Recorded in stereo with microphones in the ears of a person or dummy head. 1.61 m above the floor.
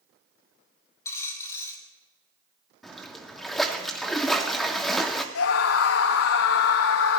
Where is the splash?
Centre (ahead or behind), 1.7 m.